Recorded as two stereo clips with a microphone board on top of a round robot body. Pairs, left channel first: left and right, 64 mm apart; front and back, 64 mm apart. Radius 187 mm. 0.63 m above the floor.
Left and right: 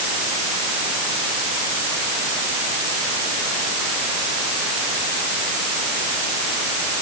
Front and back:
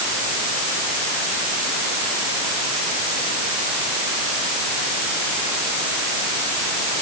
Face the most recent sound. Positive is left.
No sound to turn to.